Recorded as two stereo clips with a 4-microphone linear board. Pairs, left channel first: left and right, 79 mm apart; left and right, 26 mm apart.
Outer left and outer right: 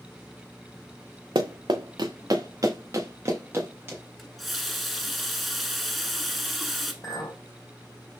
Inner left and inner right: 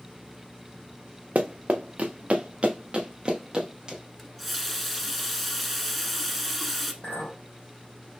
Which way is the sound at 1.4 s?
90° right.